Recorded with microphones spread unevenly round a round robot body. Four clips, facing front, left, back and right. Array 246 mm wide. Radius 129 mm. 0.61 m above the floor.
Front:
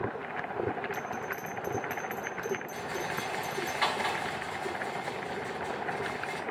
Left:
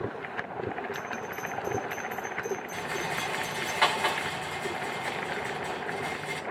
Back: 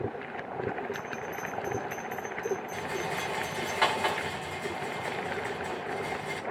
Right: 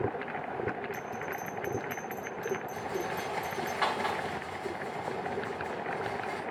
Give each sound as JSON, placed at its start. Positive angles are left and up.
{"t": 0.9, "sound": "a bell", "azimuth_deg": -40, "distance_m": 4.5}
{"t": 2.7, "sound": "a rattle", "azimuth_deg": 145, "distance_m": 2.0}